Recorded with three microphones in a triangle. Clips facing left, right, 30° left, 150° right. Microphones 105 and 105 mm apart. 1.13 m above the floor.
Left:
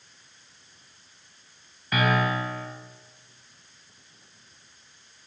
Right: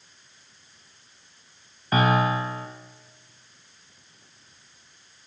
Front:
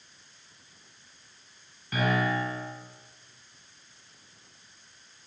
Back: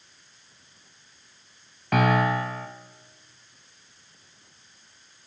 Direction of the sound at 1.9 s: 145° right.